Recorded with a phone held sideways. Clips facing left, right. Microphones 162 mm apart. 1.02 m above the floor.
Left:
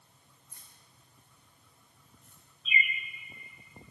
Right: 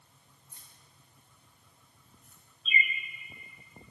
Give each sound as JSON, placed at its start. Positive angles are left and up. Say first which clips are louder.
{"t": 0.5, "sound": "keys jangling", "louder": "right 1 dB", "side_deg": -25, "distance_m": 3.0}
{"t": 2.6, "sound": "a bird", "louder": "even", "side_deg": -35, "distance_m": 0.9}